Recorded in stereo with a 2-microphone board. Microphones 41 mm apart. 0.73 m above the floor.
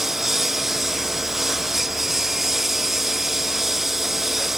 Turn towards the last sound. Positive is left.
turn(degrees=-5)  # may be behind; listen again after turning